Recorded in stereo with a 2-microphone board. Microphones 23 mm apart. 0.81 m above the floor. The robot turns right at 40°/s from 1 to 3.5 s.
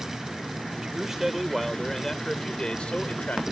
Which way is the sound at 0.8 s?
20° right.